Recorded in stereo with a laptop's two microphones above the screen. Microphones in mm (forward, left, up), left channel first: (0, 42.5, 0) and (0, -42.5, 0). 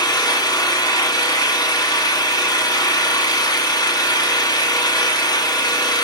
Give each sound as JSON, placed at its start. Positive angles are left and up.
{"t": 0.0, "sound": "an engine running", "side_deg": 55, "distance_m": 1.7}